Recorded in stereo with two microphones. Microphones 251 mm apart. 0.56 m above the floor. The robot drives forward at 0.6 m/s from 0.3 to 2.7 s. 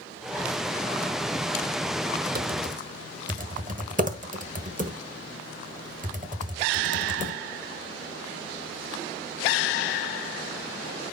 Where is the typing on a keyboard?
35° right (ahead or behind), 1.2 m; by 7.4 s 30° right (ahead or behind), 1.4 m.